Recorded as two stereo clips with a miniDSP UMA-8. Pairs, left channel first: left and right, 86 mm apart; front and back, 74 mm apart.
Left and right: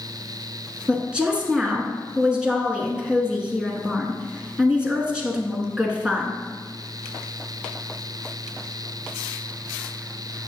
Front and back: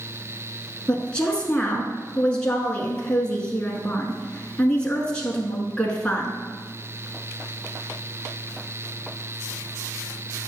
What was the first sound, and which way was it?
A woman speaking, 30° right.